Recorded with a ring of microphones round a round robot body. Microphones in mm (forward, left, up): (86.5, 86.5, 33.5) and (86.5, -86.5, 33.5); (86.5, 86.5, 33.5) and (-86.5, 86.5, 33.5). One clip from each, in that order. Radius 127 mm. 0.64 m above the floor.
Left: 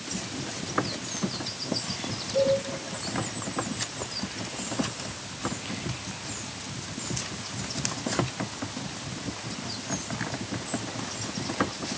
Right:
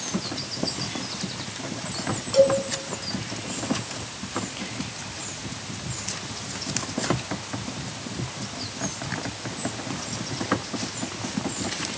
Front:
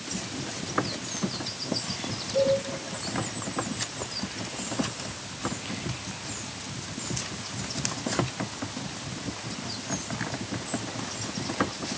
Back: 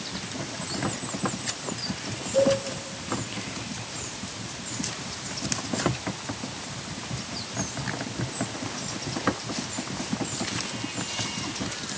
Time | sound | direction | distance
2.3 | a cowbell | 85° right | 3.5 m